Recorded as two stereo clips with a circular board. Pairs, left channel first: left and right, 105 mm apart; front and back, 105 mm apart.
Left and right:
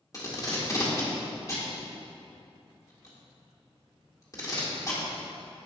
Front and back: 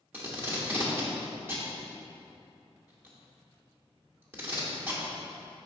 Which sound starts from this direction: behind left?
Tape being pulled, at 0.1 s.